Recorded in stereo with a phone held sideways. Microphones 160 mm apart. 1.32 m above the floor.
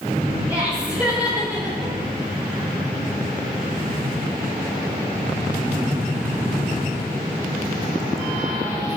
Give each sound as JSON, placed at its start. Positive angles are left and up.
{"t": 0.5, "sound": "laughter", "side_deg": -10, "distance_m": 4.0}